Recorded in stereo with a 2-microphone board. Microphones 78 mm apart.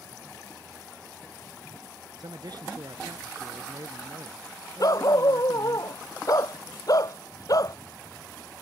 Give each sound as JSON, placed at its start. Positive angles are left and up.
{"t": 2.2, "sound": "a man speaking", "side_deg": -60}
{"t": 4.8, "sound": "a dog barking", "side_deg": 50}